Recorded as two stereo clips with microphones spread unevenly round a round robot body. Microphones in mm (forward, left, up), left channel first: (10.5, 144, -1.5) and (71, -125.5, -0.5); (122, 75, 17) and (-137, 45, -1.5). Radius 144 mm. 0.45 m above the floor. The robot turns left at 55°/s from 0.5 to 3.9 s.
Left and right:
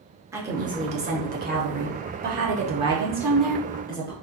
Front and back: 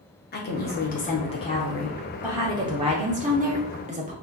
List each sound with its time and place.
0.3 s a woman speaking: 5° right, 0.8 m; by 4.1 s 165° left, 0.8 m